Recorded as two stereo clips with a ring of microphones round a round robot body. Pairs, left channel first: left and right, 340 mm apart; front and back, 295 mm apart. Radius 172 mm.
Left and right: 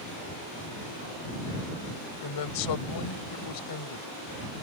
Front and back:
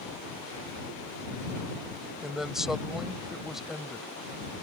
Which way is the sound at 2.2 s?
90° left.